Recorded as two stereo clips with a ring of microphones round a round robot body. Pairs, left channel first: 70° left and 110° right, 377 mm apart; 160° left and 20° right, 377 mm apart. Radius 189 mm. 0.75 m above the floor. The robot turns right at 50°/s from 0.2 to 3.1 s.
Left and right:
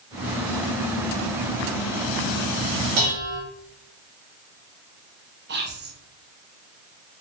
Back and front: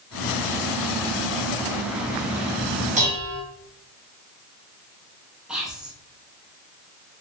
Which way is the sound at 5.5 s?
110° right.